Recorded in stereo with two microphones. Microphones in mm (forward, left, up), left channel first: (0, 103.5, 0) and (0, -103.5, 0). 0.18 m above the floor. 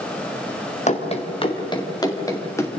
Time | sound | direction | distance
0.9 | running footsteps | 35° left (ahead or behind) | 2.5 m